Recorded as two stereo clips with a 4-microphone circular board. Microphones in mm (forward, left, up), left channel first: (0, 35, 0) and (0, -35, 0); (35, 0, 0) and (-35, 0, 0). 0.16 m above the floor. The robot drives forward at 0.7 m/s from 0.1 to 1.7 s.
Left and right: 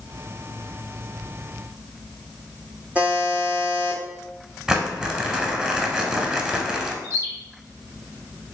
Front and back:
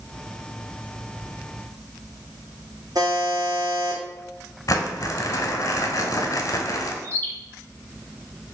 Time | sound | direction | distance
3.0 | a buzzer | 160° right | 1.3 m
4.7 | crumpling | 15° right | 0.5 m
7.0 | a bird | 60° right | 0.9 m